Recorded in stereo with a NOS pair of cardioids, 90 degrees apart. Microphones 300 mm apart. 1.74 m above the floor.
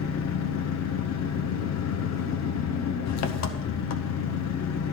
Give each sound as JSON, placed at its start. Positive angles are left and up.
{"t": 0.0, "sound": "an engine running", "azimuth_deg": 60, "distance_m": 0.9}